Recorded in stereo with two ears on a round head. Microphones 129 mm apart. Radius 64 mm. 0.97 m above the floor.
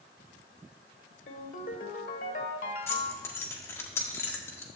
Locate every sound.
1.3 s a ringtone: 65° left (ahead or behind), 1.4 m
2.9 s keys jangling: 15° left (ahead or behind), 1.5 m